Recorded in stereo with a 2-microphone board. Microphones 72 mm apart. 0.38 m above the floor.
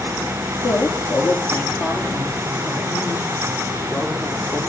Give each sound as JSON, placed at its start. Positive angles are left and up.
{"t": 0.6, "sound": "a man speaking", "side_deg": 55, "distance_m": 7.0}